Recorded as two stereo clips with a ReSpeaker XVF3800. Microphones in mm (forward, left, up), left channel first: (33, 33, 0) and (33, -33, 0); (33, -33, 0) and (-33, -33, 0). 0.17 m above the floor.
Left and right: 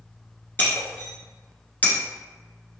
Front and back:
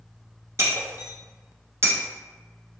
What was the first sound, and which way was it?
Breaking glass, 145° left.